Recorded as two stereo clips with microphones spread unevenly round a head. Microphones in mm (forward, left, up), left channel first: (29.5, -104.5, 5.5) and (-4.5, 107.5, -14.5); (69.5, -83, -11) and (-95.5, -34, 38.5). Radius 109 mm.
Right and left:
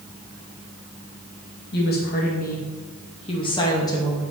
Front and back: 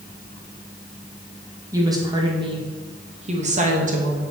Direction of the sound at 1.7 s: 125° right.